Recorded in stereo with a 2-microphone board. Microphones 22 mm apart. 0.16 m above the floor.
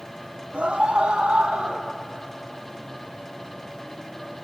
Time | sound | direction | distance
0.5 | a scream | 50° right (ahead or behind) | 3.5 m